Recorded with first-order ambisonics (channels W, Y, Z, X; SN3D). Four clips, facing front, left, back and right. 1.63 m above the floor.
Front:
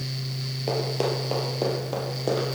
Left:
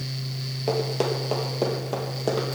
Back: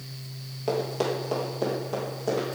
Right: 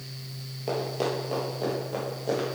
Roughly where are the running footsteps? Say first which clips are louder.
Left 3 dB, even; ahead left.